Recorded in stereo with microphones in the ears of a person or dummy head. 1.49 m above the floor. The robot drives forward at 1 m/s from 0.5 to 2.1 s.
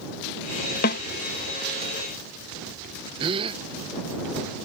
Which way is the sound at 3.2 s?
25° right (ahead or behind).